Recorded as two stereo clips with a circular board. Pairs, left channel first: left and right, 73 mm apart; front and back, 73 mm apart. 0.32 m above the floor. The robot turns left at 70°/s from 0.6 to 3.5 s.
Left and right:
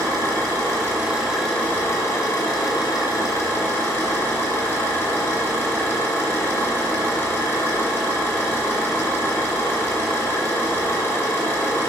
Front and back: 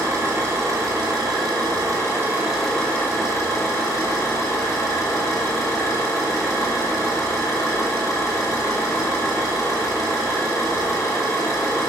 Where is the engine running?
125° right, 1.9 m; by 11.9 s 30° left, 1.9 m.